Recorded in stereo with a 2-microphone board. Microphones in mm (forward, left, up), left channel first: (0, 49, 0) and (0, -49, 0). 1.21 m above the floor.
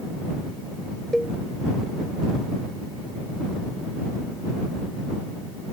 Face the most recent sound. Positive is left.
turn(degrees=5)  # may be behind; listen again after turning